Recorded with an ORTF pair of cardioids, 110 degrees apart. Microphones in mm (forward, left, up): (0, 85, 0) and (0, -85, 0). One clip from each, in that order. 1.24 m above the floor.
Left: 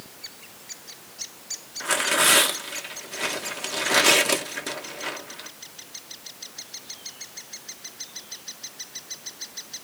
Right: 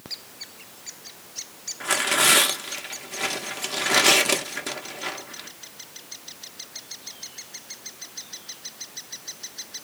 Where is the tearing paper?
5° right, 1.0 m.